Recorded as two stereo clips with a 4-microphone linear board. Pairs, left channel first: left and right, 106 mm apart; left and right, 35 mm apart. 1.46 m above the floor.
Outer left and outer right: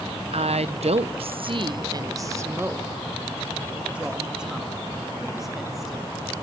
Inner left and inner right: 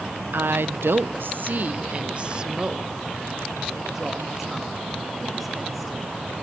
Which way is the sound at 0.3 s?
70° right (ahead or behind).